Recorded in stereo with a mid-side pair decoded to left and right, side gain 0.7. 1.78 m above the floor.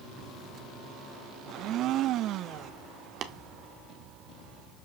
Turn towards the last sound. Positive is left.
turn(degrees=-40)